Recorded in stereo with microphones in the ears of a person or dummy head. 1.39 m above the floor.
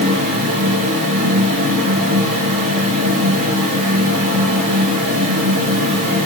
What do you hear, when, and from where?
0.0 s a fan: 50° right (ahead or behind), 6.5 m